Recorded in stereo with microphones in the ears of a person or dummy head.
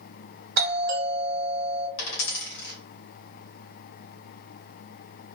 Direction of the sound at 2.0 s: 60° left (ahead or behind).